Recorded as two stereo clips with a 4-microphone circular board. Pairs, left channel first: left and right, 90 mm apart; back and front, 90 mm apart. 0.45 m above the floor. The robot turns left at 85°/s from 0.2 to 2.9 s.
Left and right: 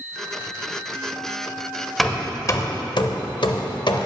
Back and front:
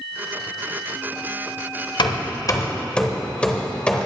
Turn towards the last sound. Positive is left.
turn(degrees=105)